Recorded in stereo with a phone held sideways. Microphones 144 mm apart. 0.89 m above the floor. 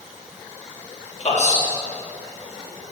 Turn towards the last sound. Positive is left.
turn(degrees=55)  # may be behind; listen again after turning